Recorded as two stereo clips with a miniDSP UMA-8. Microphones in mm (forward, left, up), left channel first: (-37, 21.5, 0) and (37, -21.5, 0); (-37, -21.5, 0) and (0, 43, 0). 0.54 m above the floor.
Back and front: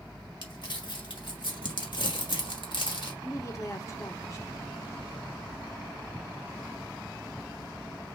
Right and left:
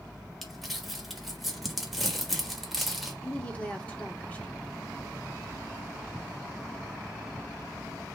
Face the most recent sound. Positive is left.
turn(degrees=175)